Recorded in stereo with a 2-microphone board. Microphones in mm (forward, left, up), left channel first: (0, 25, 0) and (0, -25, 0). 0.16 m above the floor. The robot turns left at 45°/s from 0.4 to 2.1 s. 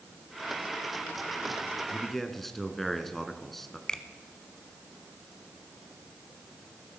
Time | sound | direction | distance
1.9 | a man speaking | centre (ahead or behind) | 1.5 m
3.9 | a finger snap | 15° left (ahead or behind) | 1.1 m